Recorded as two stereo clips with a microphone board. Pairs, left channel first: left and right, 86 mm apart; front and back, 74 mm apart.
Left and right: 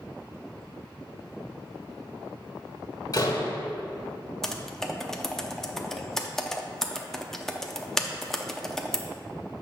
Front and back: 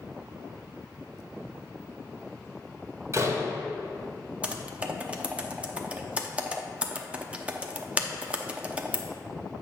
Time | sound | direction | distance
3.1 | a door slam | 130° left | 1.2 m
4.4 | typing on a keyboard | 165° left | 0.6 m